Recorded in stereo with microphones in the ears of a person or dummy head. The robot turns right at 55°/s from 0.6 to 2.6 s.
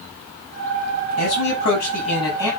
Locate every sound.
1.2 s a man speaking: 90° left, 7.5 m; by 2.5 s 165° left, 7.5 m